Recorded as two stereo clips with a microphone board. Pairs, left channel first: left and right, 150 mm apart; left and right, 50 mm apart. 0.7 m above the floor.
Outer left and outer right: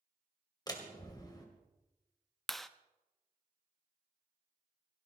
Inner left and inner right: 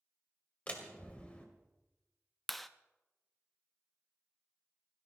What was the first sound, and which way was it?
A door slam, 25° left (ahead or behind).